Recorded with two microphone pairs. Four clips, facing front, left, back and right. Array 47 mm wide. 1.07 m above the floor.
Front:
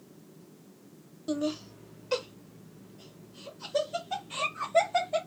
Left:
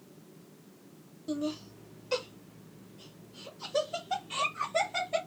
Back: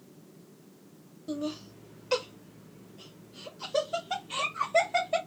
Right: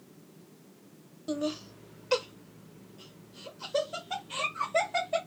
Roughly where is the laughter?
Ahead right.